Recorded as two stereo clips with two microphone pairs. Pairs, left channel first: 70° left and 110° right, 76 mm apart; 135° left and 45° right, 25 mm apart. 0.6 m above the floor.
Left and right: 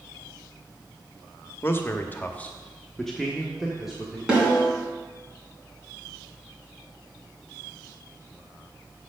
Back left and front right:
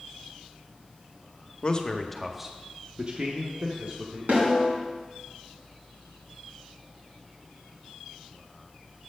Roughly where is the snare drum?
Ahead right.